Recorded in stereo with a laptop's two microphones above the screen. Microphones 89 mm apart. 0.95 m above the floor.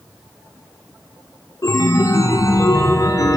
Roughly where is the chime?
Left.